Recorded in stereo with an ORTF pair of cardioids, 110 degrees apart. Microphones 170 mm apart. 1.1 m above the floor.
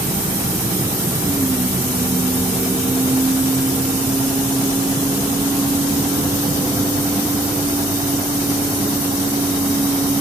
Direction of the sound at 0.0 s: 15° right.